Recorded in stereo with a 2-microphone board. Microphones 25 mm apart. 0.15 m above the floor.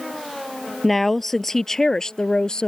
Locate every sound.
0.8 s a woman speaking: 5° left (ahead or behind); by 2.7 s 40° left (ahead or behind)